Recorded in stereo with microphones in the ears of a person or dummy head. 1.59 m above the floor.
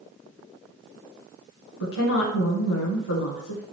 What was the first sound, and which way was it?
A woman speaking, 75° left (ahead or behind).